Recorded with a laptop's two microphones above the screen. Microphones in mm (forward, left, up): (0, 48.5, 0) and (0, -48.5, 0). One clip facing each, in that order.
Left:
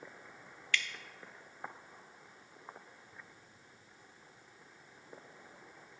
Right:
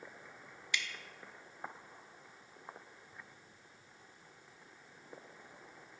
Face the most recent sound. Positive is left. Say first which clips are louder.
# left 3 dB
turn(degrees=-20)  # may be behind; listen again after turning